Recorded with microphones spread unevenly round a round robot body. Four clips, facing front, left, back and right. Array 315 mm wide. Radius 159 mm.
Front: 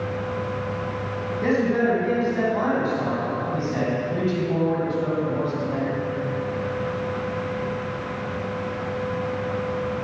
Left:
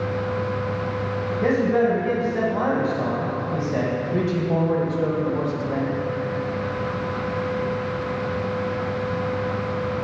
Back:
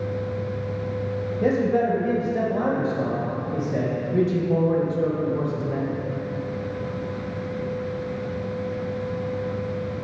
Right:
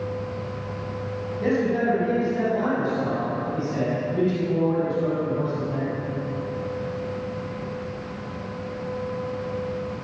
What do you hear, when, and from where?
1.4 s a man speaking: 170° left, 4 m; by 5.9 s 140° left, 2.5 m